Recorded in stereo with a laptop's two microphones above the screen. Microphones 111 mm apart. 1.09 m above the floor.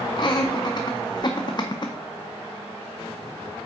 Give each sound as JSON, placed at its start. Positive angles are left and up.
{"t": 0.2, "sound": "laughter", "side_deg": 40, "distance_m": 0.5}